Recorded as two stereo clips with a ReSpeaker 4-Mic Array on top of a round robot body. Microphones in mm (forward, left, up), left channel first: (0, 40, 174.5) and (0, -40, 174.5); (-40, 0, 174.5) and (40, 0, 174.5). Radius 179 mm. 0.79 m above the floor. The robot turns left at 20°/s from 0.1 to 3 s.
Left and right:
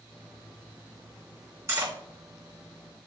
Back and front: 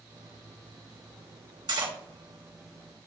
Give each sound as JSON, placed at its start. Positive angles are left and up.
{"t": 1.7, "sound": "cutlery clinking", "azimuth_deg": -35, "distance_m": 1.8}